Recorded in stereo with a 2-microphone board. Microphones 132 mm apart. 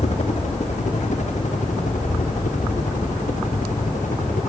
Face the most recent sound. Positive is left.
turn(degrees=75)  # may be behind; listen again after turning